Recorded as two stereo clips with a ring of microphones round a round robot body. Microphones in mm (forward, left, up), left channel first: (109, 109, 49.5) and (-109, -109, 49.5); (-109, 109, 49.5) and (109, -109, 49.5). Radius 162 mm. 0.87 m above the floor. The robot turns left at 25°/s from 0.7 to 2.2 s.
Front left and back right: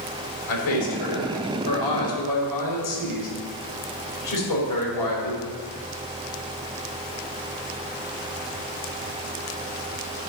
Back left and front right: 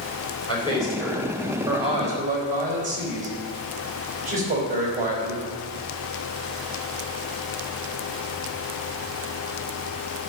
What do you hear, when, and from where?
0.5 s a man speaking: 60° left, 3.5 m; by 5.4 s 20° left, 3.5 m